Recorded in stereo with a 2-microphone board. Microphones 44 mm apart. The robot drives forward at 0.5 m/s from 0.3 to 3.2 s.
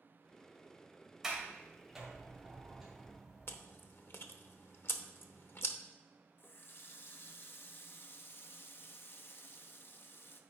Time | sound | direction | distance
1.2 | a sliding door | 15° right (ahead or behind) | 2.0 m
3.5 | chewing | 55° left (ahead or behind) | 0.7 m
6.4 | a running tap | 50° left (ahead or behind) | 0.6 m